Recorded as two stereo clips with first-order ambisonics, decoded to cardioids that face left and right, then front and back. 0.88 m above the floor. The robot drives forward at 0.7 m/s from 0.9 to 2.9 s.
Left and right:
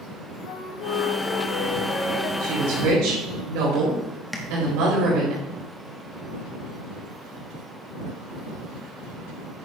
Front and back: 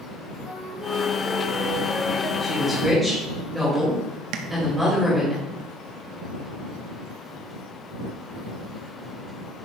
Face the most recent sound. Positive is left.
turn(degrees=175)